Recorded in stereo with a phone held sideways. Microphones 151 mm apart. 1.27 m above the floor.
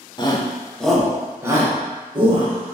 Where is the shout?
30° left (ahead or behind), 0.7 m; by 2.8 s 40° right (ahead or behind), 1.4 m.